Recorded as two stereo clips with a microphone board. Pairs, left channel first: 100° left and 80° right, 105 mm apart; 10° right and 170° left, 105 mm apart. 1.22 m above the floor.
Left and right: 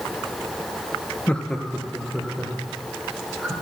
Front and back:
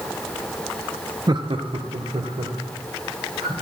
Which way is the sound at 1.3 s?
170° left.